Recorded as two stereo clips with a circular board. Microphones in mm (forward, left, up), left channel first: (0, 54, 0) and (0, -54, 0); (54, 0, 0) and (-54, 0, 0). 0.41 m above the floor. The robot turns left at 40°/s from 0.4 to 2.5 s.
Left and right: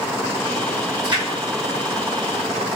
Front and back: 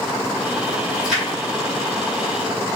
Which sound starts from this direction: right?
A splash, at 1.0 s.